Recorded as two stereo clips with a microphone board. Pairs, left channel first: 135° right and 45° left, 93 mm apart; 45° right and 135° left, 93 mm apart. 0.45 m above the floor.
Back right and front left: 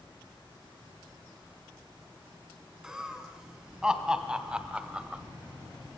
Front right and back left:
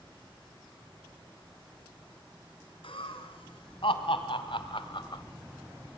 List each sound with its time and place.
2.8 s laughter: 40° right, 3.5 m; by 5.2 s 30° right, 1.6 m